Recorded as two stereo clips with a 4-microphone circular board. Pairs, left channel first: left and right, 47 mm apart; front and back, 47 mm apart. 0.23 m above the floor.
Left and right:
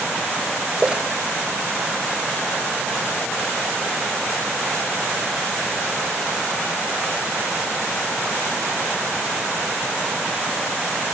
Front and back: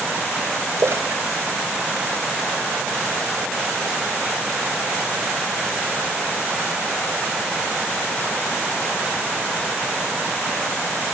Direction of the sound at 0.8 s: 160° right.